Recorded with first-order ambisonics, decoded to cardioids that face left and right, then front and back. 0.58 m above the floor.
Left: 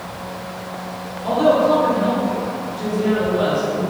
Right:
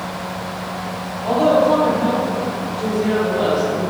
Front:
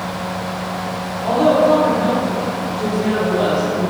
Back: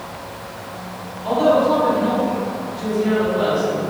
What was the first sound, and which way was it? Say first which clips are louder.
A woman speaking: right 1 dB, front 2 dB; 40° left.